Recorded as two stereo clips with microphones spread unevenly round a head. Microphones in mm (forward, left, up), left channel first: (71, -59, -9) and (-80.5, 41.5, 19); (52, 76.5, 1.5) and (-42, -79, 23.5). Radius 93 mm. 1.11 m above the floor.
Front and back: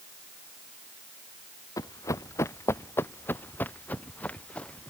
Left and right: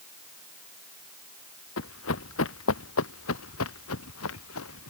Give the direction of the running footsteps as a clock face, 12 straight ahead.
11 o'clock.